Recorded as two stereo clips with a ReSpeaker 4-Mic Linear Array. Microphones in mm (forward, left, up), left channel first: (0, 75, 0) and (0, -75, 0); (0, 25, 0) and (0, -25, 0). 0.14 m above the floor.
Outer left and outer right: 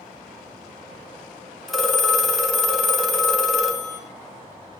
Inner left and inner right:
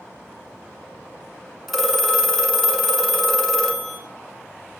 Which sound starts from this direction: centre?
A phone ringing, at 1.7 s.